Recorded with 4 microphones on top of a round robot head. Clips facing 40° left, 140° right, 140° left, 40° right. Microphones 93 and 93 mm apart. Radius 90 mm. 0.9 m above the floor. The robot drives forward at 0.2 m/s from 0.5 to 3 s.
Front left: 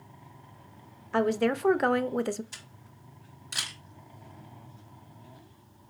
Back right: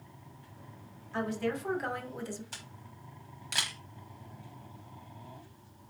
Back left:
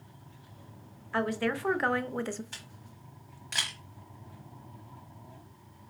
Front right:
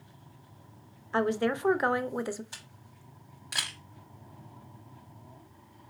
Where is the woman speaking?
25° left, 0.7 m; by 2.4 s 40° left, 0.5 m.